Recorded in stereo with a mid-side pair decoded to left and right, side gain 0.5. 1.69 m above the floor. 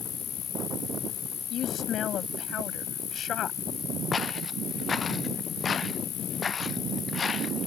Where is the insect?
60° left.